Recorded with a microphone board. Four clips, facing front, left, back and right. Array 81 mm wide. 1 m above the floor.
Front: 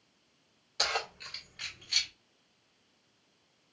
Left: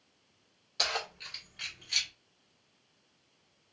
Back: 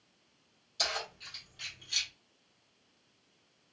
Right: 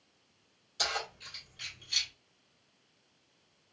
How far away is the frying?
I don't hear frying.